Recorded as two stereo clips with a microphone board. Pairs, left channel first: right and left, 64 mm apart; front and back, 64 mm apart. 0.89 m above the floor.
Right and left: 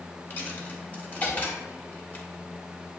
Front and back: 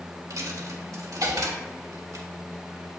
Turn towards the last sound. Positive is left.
turn(degrees=-150)